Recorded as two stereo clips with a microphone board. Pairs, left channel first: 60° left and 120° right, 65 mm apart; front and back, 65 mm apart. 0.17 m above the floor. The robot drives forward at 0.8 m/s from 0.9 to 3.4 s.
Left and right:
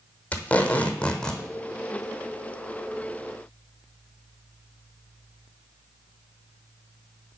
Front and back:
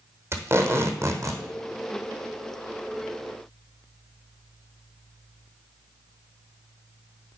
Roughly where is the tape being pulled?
Behind left.